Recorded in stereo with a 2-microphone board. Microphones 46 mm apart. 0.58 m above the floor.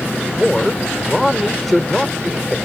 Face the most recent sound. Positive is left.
turn(degrees=5)  # may be behind; listen again after turning